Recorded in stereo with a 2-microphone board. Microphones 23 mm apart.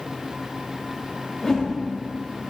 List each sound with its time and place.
1.4 s a whoosh: 15° left (ahead or behind), 2.5 m